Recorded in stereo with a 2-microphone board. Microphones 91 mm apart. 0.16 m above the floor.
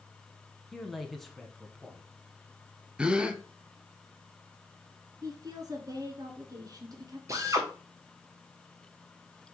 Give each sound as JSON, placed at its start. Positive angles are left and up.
{"t": 0.7, "sound": "a man speaking", "side_deg": 5, "distance_m": 1.1}
{"t": 3.0, "sound": "a gasp", "side_deg": -10, "distance_m": 0.7}
{"t": 5.2, "sound": "a woman speaking", "side_deg": -45, "distance_m": 1.6}
{"t": 7.3, "sound": "a drill", "side_deg": -35, "distance_m": 1.7}